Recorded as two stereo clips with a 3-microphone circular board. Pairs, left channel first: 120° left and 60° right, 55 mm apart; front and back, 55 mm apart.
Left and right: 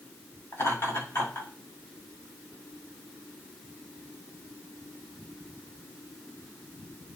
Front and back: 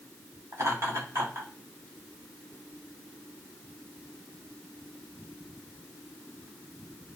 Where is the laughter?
150° left, 5.5 m.